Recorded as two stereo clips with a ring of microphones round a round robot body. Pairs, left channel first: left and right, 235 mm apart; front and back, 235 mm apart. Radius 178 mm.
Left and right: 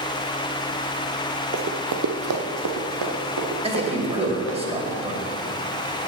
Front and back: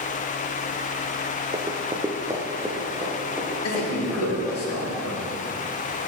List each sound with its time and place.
1.5 s running footsteps: 115° right, 0.6 m; by 4.6 s 95° right, 3 m
3.6 s a man speaking: 25° right, 2.5 m